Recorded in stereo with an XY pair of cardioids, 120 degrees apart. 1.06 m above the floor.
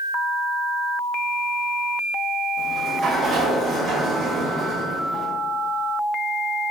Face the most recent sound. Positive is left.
turn(degrees=-50)